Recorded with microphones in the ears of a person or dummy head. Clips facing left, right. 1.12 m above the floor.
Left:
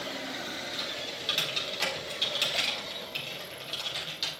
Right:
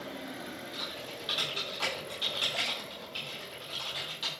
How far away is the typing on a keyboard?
About 3 m.